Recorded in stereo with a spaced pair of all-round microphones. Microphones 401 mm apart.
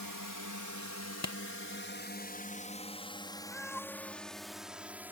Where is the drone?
55° left (ahead or behind); by 5.1 s 5° right (ahead or behind).